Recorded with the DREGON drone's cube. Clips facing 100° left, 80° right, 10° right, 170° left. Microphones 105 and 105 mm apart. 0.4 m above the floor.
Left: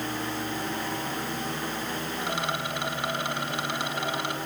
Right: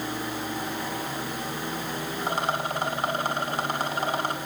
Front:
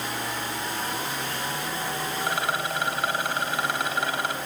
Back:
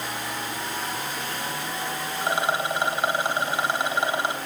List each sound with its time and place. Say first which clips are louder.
2.2 s a rattle: right 5 dB, back 4 dB; 125° right, 3.5 m